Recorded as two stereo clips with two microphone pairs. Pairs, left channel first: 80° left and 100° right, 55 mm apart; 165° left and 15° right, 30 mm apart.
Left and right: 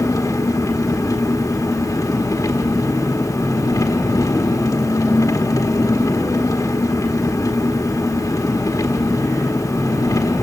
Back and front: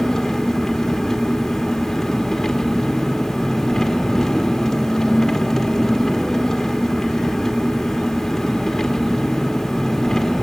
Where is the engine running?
85° left, 1.6 m.